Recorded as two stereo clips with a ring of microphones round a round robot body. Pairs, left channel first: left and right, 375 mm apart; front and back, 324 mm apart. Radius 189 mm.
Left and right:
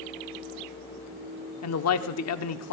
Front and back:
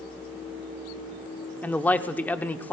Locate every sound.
1.6 s a man speaking: 80° left, 1.0 m